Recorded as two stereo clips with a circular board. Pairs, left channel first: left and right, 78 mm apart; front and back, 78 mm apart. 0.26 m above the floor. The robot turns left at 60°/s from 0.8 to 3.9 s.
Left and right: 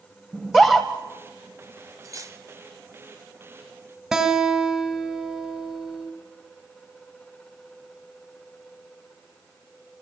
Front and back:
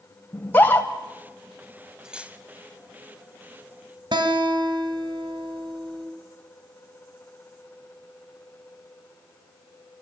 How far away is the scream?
About 1.6 m.